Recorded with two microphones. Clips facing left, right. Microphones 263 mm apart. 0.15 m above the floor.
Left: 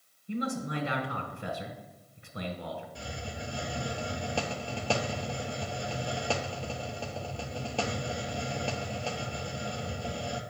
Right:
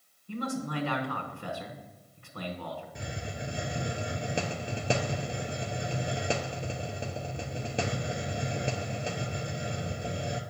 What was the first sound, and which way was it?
A man speaking, 20° left (ahead or behind).